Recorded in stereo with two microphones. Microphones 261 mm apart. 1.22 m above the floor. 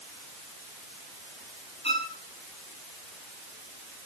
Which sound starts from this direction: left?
A violin, at 1.8 s.